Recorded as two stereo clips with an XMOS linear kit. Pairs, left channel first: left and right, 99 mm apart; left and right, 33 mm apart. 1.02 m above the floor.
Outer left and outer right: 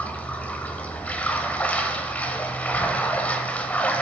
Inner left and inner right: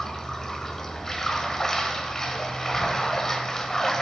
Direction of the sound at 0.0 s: 15° left (ahead or behind).